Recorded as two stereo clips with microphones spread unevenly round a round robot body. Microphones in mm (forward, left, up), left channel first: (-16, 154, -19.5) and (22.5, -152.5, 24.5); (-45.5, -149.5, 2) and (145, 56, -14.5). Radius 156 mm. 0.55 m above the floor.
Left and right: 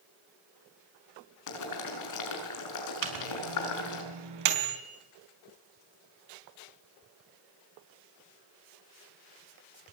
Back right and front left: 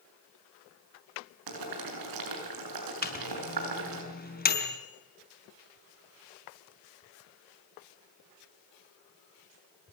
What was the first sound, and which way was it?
Boiling, 65° left.